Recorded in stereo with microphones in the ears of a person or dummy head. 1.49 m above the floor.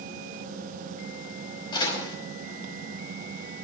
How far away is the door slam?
About 5 m.